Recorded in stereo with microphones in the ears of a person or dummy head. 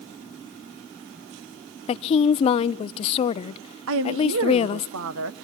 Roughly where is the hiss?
No hiss in this recording.